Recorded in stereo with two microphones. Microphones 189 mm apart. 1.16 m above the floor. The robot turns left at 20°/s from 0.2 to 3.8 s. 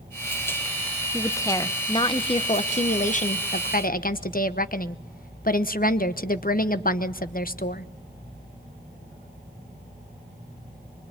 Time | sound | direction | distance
1.1 | a woman speaking | 165° left | 1.0 m